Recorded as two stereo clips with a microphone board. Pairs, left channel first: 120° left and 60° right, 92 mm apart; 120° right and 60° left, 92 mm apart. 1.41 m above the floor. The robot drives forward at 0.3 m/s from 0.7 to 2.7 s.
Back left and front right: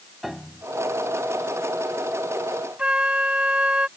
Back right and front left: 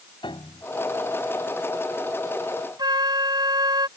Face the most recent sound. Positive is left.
turn(degrees=20)